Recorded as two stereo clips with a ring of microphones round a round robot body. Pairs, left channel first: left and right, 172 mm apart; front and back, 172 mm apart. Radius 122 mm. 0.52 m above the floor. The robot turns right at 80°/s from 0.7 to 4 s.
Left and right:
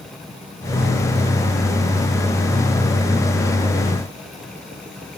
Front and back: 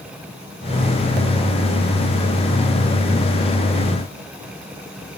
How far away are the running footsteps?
No running footsteps in this recording.